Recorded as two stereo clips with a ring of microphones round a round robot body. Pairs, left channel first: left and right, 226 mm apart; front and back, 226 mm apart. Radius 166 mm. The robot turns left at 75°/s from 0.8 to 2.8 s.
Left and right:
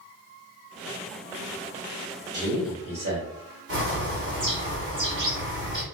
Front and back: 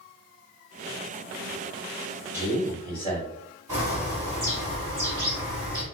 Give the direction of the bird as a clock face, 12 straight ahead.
3 o'clock.